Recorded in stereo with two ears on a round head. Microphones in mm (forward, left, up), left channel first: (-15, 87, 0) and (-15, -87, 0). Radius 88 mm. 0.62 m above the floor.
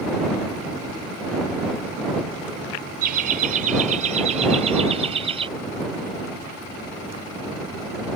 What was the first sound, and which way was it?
Laughter, 50° right (ahead or behind).